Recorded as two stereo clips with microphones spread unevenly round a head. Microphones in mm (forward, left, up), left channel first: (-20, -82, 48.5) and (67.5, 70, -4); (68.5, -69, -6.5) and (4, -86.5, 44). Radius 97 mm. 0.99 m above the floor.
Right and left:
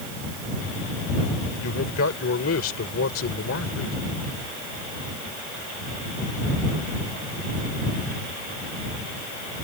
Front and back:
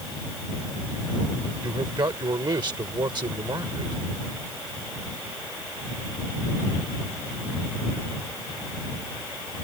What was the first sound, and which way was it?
A man speaking, 140° right.